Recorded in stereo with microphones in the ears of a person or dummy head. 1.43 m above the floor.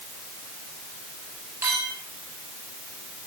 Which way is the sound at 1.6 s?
15° right (ahead or behind).